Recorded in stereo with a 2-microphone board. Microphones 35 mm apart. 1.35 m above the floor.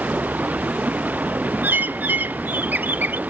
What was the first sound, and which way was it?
Running water, 55° right (ahead or behind).